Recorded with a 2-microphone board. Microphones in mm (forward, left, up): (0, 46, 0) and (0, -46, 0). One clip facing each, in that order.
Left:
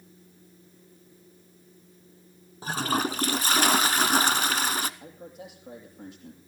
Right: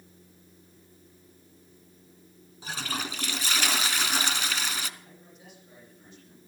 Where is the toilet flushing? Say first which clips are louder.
Left 8 dB; 40° left (ahead or behind), 0.8 m.